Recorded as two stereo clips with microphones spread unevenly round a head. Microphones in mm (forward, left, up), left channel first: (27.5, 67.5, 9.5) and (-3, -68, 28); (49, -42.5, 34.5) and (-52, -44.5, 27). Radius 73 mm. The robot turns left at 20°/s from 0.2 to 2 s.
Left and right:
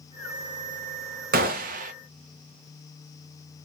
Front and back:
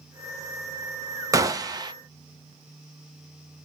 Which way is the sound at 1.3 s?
125° right.